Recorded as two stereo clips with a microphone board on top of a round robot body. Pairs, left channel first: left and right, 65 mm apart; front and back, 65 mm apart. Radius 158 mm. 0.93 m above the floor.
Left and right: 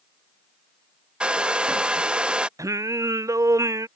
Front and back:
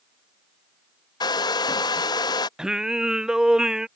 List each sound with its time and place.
1.2 s a hair dryer: 15° right
2.6 s singing: 100° right